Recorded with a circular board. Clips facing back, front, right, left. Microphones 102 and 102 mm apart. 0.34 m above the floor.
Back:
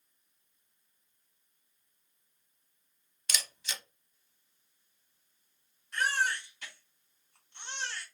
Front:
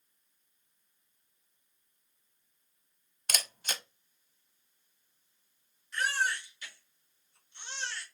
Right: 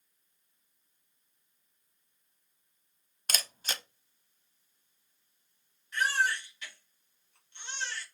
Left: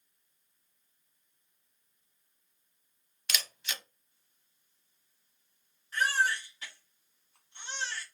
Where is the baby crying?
140° left, 2.5 m.